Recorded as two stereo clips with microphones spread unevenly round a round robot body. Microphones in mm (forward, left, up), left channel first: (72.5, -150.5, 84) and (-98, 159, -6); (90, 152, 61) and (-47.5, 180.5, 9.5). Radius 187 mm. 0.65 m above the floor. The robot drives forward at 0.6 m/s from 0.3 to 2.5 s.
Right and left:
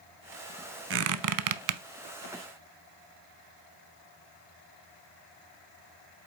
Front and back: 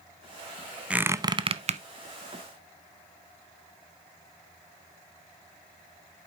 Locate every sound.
0.9 s a squeak: 65° left, 0.6 m; by 1.8 s 135° left, 0.7 m